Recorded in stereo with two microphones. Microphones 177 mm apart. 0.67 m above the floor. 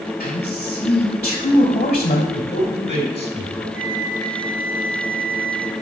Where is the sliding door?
No sliding door in this recording.